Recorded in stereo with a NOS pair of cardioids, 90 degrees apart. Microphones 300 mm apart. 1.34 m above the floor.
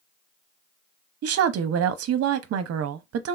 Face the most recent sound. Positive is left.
turn(degrees=-50)